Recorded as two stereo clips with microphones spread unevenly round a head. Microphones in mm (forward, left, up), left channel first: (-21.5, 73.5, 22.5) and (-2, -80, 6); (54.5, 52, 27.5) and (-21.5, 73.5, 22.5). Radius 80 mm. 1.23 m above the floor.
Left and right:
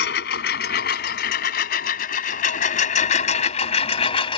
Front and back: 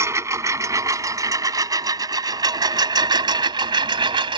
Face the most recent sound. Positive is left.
turn(degrees=150)